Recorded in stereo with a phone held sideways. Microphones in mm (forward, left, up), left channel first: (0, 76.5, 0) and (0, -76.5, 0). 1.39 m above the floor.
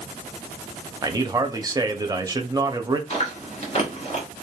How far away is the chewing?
About 1.1 m.